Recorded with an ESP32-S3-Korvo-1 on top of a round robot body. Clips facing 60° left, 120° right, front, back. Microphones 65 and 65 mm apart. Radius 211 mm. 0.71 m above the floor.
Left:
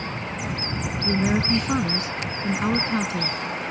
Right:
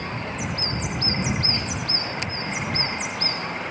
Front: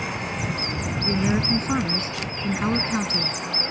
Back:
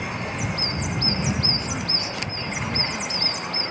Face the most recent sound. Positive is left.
turn(degrees=50)